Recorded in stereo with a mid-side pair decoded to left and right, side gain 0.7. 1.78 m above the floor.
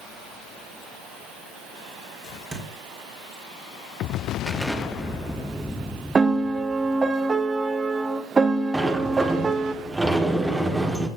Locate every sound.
2.5 s a thud: 30° right, 3.5 m
4.5 s an explosion: straight ahead, 1.0 m
6.2 s a piano: 20° right, 0.7 m
8.7 s a sliding door: 10° right, 1.5 m